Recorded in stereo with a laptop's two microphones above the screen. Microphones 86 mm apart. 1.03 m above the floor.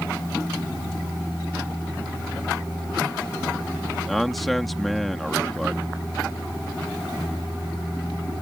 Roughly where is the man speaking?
Centre.